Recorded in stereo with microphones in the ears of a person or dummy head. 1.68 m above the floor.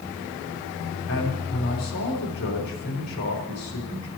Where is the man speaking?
85° left, 4 m.